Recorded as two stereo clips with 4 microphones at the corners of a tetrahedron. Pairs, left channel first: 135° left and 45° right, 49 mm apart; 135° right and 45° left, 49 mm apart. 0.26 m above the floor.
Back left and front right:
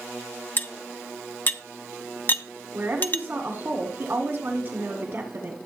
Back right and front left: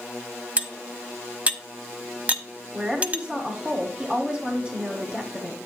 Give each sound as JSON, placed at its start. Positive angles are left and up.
{"t": 0.6, "sound": "cutlery clinking", "azimuth_deg": 100, "distance_m": 1.0}
{"t": 2.7, "sound": "a woman speaking", "azimuth_deg": -20, "distance_m": 2.0}